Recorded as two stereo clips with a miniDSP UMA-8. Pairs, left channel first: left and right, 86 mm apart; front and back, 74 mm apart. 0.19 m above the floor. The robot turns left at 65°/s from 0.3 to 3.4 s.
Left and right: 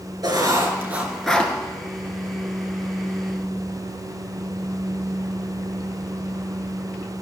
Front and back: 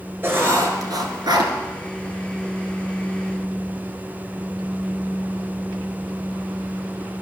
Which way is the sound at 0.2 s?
120° right.